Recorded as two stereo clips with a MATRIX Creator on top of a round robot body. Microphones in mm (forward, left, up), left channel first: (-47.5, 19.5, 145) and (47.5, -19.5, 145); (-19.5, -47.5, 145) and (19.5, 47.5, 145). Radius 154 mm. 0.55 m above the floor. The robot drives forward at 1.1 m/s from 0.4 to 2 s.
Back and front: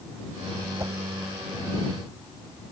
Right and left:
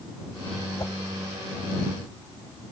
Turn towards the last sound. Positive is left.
turn(degrees=-130)